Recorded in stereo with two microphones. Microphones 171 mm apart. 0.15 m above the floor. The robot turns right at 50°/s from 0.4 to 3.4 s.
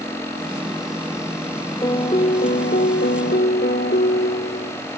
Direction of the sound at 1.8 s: 25° left.